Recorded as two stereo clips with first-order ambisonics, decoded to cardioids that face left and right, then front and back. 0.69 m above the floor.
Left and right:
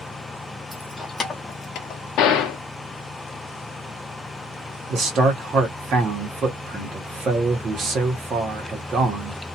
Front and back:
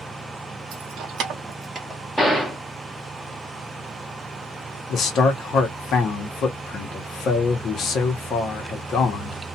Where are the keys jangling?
170° right, 0.9 m; by 2.0 s 105° left, 0.9 m.